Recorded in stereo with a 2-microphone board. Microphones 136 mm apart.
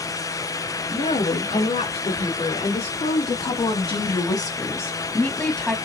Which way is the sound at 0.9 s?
55° left (ahead or behind).